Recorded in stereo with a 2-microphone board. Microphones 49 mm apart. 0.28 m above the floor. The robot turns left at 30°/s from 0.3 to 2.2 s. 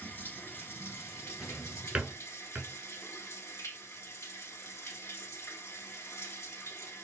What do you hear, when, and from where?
0.0 s running water: 140° left, 0.9 m; by 7.0 s 80° left, 0.9 m
1.4 s a drawer: 5° right (ahead or behind), 0.8 m; by 2.7 s 30° right (ahead or behind), 0.8 m